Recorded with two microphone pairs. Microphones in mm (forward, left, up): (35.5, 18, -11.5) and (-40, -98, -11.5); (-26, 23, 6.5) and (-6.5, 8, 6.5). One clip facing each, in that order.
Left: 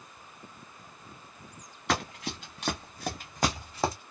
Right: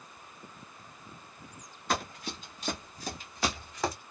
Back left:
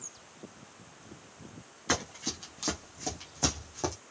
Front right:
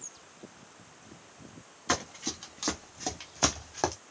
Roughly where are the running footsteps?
Ahead left.